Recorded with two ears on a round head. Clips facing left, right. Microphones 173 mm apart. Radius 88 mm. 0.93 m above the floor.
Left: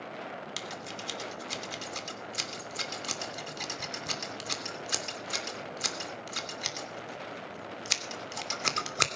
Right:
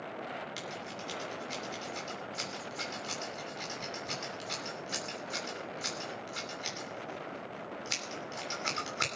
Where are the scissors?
60° left (ahead or behind), 2.5 m.